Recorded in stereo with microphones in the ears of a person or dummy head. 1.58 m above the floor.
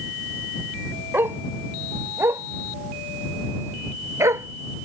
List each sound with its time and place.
1.1 s a dog barking: 10° right (ahead or behind); by 4.8 s 15° right (ahead or behind)